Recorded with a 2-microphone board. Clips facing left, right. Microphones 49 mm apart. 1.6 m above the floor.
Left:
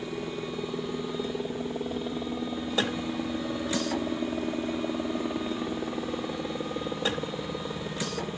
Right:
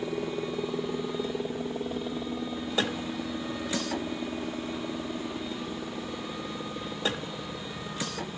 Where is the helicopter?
20° right (ahead or behind); by 8.4 s 35° left (ahead or behind).